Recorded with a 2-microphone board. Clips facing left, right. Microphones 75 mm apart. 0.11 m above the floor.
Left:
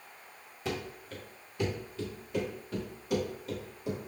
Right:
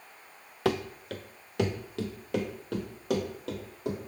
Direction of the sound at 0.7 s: 75° right (ahead or behind).